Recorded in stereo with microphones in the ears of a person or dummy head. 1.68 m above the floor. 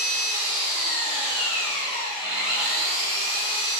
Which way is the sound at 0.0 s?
5° right (ahead or behind).